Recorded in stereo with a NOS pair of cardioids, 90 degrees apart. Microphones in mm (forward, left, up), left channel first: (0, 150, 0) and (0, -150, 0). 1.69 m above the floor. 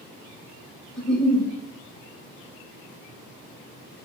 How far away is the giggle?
About 0.9 m.